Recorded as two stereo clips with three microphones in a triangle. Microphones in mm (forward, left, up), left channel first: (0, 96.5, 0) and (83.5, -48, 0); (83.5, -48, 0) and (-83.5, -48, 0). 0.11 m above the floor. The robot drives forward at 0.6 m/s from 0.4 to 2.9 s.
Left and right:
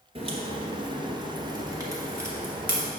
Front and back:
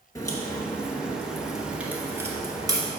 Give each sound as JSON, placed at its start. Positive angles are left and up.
{"t": 0.1, "sound": "a crack", "azimuth_deg": -55, "distance_m": 1.8}